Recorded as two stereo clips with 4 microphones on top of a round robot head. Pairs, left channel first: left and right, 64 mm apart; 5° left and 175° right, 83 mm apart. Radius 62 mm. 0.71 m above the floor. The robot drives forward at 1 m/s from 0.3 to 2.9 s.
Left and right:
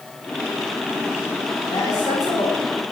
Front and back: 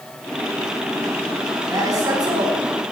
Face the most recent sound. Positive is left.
turn(degrees=145)